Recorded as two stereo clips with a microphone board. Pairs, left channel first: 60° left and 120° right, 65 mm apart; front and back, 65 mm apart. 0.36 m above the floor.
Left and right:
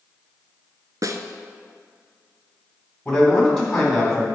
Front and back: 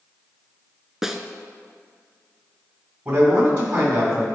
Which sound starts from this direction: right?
A snare drum, at 1.0 s.